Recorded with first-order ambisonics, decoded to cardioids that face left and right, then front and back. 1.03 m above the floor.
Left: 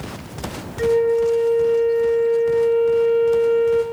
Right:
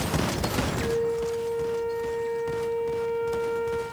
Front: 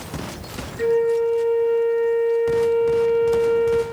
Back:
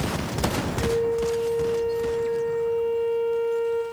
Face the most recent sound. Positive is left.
turn(degrees=55)